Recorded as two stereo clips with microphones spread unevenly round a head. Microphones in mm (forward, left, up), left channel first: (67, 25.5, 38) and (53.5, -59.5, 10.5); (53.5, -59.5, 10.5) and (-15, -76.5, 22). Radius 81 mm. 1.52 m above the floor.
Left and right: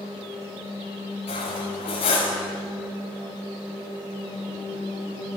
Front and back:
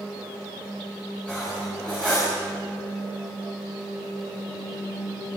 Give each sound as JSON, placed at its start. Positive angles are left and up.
{"t": 1.3, "sound": "cutlery clinking", "azimuth_deg": 100, "distance_m": 5.5}